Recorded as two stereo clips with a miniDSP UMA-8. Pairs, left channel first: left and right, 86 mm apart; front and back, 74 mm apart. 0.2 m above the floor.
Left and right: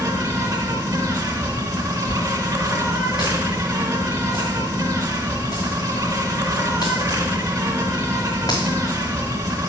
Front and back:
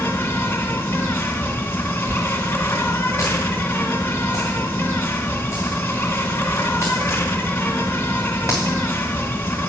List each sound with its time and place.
0.0 s an insect: 55° right, 1.0 m
2.1 s a dropped coin: 135° left, 3.5 m